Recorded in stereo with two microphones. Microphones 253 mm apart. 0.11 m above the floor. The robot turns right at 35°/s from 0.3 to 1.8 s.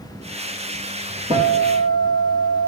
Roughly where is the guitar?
Right.